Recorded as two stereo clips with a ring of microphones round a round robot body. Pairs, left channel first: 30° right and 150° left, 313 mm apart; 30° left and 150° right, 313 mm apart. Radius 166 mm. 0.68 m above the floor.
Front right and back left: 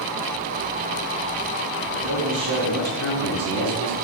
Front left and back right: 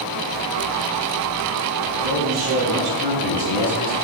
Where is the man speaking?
170° left, 5.5 m; by 3.9 s 175° left, 6.5 m.